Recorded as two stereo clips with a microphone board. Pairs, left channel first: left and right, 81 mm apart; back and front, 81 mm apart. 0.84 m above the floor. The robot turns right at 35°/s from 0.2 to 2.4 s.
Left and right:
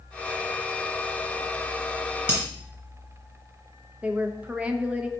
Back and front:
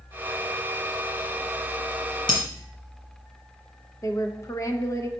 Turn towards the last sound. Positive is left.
turn(degrees=-155)